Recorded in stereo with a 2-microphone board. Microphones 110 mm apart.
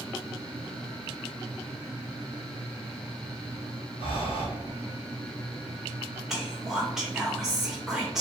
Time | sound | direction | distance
4.0 | breathing | 55° left (ahead or behind) | 1.6 m
6.3 | whispering | 5° right (ahead or behind) | 0.7 m